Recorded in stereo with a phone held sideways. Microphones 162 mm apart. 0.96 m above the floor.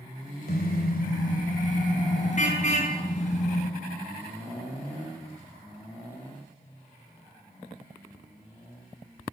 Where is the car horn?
70° left (ahead or behind), 2.5 m; by 3.7 s 45° left (ahead or behind), 6 m.